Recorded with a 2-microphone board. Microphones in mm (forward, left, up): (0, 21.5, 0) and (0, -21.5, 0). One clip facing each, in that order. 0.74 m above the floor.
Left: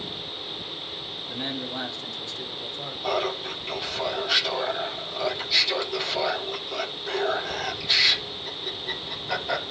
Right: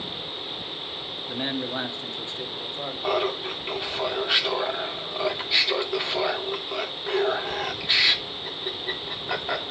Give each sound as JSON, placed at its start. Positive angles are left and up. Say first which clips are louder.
{"t": 1.3, "sound": "a man speaking", "louder": "right 3 dB", "side_deg": -25, "distance_m": 1.0}
{"t": 3.0, "sound": "laughter", "louder": "right 1 dB", "side_deg": -25, "distance_m": 2.5}